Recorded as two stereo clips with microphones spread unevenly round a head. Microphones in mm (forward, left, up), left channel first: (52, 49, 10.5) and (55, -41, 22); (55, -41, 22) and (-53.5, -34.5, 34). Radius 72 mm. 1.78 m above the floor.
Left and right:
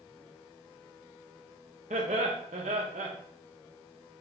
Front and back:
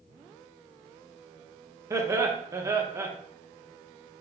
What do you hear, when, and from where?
1.9 s laughter: 120° right, 0.8 m